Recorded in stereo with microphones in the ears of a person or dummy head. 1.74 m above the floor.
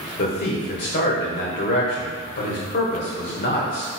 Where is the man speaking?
40° left (ahead or behind), 0.7 m.